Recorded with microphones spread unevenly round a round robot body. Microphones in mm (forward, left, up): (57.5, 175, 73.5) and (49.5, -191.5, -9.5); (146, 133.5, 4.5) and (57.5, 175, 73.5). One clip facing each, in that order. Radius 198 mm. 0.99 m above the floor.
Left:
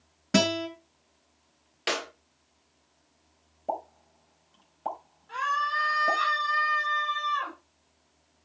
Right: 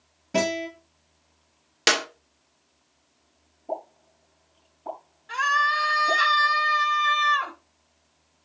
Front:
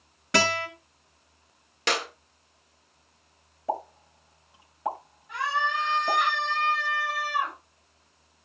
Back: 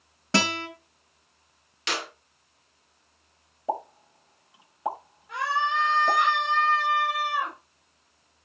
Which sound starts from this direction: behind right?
A scream, at 5.3 s.